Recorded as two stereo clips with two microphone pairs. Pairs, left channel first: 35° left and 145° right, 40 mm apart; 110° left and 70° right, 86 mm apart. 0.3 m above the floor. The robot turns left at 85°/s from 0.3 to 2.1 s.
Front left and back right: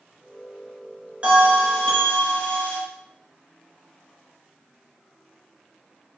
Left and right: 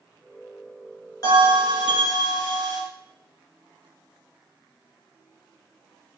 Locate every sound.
1.2 s a bell: 155° left, 2.5 m; by 2.8 s 80° left, 2.5 m